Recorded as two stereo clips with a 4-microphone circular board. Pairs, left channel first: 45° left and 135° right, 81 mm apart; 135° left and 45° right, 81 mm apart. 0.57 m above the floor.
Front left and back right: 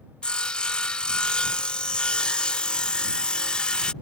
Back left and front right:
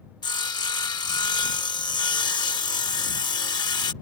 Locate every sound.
0.2 s sawing: 120° left